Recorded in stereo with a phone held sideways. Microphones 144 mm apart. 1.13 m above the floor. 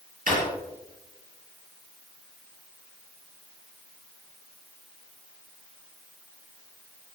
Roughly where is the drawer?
Right.